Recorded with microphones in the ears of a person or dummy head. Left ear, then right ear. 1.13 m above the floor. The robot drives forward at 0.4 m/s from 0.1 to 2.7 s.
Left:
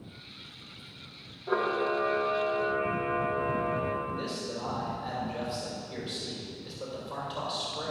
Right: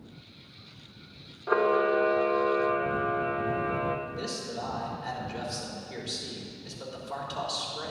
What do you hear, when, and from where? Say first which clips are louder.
1.5 s a camera shutter: right 4 dB; 55° right (ahead or behind), 0.8 m
4.1 s a man speaking: left 1 dB; 55° right (ahead or behind), 4 m